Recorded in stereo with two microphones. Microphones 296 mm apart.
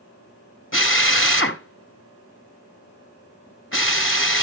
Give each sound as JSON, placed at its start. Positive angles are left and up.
{"t": 0.7, "sound": "a drill", "side_deg": 45, "distance_m": 1.6}